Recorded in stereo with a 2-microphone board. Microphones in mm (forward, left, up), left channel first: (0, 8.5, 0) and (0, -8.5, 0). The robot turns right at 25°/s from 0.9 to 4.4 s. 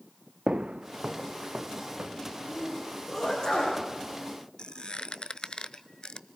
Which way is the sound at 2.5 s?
25° left (ahead or behind).